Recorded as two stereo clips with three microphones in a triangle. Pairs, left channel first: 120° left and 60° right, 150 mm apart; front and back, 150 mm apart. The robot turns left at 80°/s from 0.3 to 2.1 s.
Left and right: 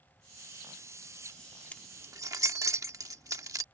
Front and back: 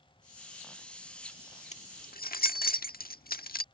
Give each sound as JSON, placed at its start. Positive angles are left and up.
{"t": 1.7, "sound": "keys jangling", "azimuth_deg": 40}